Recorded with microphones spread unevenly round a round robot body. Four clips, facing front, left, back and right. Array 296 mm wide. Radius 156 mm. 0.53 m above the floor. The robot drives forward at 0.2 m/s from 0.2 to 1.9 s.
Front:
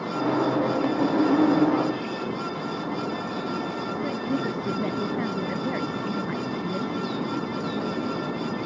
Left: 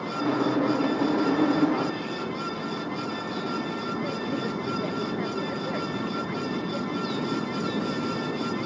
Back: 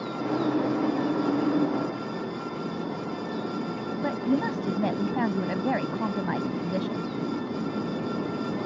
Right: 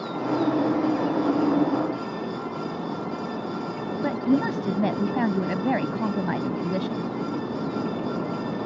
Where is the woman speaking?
110° right.